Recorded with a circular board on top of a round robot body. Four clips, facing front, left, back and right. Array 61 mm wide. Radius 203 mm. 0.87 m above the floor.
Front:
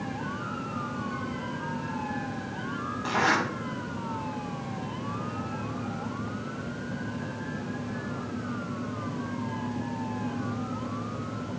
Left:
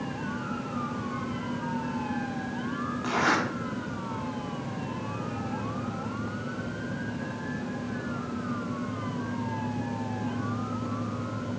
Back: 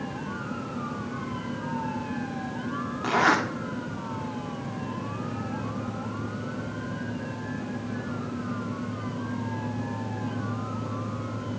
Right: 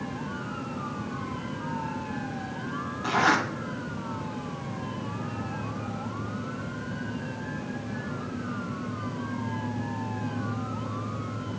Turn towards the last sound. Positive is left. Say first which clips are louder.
# right 3 dB, back 3 dB
turn(degrees=175)